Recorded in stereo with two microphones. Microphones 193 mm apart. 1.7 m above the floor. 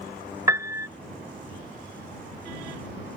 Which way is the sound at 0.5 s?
15° right (ahead or behind).